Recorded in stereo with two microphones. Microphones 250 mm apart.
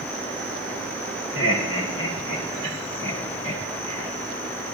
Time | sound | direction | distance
1.4 | laughter | 60° left (ahead or behind) | 2 m